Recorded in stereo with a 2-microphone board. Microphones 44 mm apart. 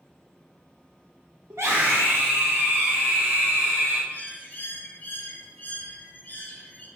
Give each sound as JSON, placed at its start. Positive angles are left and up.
{"t": 1.5, "sound": "a scream", "side_deg": -80, "distance_m": 1.4}
{"t": 4.1, "sound": "a bird", "side_deg": 35, "distance_m": 1.7}